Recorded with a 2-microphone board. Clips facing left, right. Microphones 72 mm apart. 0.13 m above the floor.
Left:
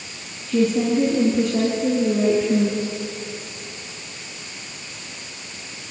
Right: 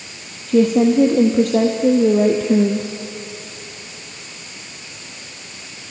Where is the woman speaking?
55° right (ahead or behind), 3.5 m; by 2.9 s 65° right (ahead or behind), 2.5 m.